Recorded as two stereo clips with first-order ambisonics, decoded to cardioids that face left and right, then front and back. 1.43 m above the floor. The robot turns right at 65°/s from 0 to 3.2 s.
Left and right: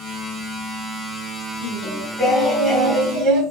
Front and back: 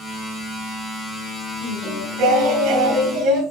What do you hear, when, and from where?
1.6 s singing: 130° left, 4 m; by 3.4 s 125° right, 4 m